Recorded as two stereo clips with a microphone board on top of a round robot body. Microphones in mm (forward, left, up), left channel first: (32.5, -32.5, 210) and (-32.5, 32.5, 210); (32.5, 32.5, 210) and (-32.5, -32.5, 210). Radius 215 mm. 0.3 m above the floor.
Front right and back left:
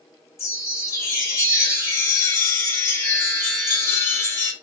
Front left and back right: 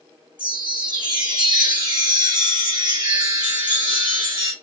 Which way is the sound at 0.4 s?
105° right.